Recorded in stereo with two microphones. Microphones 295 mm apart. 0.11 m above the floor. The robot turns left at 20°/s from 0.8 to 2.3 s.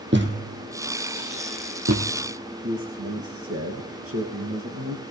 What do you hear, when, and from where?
0.1 s a thud: 40° right (ahead or behind), 1.9 m; by 2.1 s 60° right (ahead or behind), 1.9 m
2.6 s a man speaking: 50° right (ahead or behind), 2.5 m